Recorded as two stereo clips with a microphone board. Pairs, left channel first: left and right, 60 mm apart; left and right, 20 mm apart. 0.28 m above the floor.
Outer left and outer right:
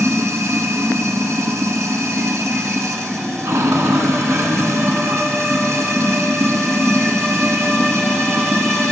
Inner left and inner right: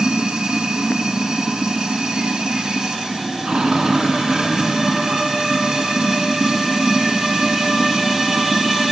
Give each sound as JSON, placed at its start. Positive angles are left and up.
{"t": 0.0, "sound": "running water", "side_deg": -55, "distance_m": 1.2}